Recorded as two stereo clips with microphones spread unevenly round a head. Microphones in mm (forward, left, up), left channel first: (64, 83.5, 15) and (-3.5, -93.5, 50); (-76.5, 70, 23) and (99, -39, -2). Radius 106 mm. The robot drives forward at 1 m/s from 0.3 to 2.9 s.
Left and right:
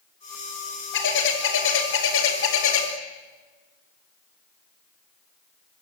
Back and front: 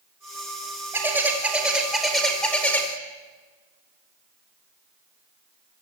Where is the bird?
50° left, 5.5 m; by 2.9 s 70° left, 4.5 m.